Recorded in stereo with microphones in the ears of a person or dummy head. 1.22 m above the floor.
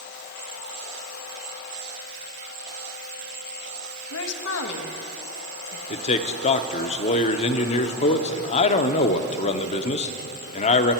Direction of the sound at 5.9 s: 35° left (ahead or behind).